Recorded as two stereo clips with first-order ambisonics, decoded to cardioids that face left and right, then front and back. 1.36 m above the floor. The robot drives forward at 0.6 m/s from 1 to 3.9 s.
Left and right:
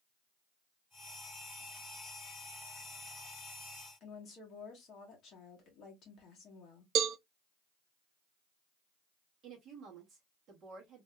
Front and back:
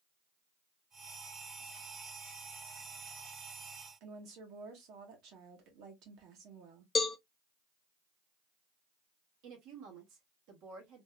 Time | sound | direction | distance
4.0 | a woman speaking | 145° left | 1.8 m
7.0 | a cowbell | 65° right | 0.5 m
9.4 | a woman speaking | 150° right | 1.8 m